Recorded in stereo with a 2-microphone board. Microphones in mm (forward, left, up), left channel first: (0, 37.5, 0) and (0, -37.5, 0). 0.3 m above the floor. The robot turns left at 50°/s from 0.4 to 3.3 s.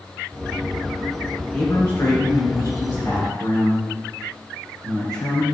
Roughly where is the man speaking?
Behind.